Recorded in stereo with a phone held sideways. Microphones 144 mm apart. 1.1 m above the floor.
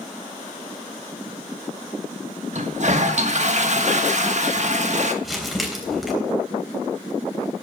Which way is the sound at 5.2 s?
Centre (ahead or behind).